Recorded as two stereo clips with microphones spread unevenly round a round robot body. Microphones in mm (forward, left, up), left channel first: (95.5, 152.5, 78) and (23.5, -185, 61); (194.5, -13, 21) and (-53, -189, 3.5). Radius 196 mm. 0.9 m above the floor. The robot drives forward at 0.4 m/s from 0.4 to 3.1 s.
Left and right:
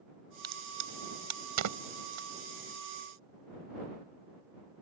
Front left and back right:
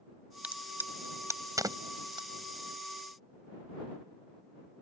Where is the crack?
60° right; by 2.3 s 70° right.